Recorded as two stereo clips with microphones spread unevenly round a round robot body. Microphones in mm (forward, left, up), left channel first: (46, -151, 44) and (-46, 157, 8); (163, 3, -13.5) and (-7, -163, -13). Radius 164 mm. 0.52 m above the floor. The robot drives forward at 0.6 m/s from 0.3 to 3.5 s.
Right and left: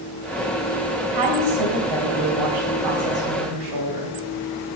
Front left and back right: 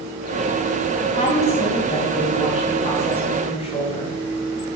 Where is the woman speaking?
105° left, 1.9 m; by 4.1 s 135° left, 2.5 m.